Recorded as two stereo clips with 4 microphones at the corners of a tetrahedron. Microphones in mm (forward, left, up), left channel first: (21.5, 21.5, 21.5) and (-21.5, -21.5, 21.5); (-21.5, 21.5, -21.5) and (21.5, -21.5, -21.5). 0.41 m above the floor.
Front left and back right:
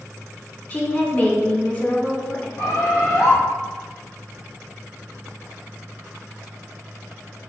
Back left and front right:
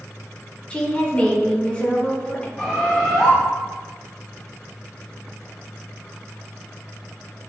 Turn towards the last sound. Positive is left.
turn(degrees=45)